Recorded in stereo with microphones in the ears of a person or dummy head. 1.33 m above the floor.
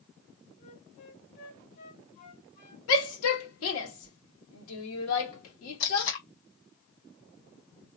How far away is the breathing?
I don't hear breathing.